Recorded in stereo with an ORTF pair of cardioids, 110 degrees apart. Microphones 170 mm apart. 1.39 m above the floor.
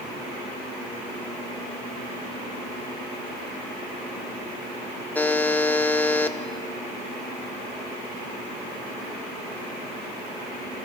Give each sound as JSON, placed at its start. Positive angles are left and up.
{"t": 5.2, "sound": "a buzzer", "azimuth_deg": 10, "distance_m": 1.2}